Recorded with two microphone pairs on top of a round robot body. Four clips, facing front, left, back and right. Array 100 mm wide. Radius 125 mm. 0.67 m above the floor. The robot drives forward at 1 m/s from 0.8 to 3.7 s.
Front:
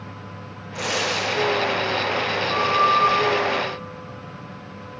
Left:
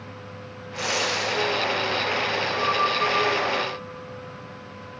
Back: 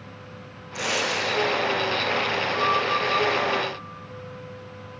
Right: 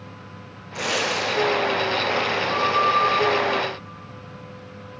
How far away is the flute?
About 2.5 m.